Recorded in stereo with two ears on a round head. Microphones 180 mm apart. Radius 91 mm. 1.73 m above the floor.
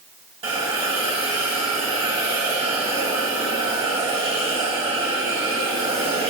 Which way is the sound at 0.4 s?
25° right (ahead or behind).